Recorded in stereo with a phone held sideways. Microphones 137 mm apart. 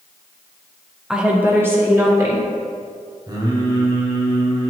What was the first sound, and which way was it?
A woman speaking, 5° right (ahead or behind).